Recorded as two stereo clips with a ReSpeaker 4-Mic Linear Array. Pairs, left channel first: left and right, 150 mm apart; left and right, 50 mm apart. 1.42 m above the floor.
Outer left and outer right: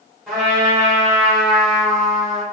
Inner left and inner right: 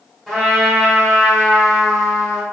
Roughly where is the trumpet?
Centre.